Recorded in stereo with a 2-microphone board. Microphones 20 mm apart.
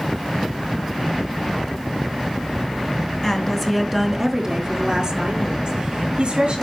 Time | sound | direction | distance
3.2 | a woman speaking | 30° left (ahead or behind) | 1.5 m